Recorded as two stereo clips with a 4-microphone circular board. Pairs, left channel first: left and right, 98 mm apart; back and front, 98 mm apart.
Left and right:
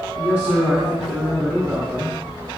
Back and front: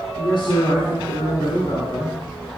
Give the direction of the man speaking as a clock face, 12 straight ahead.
5 o'clock.